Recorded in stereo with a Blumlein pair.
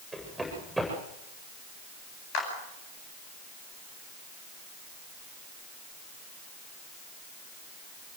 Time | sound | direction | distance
0.1 | running footsteps | straight ahead | 8 m
2.3 | a clap | 45° left | 9 m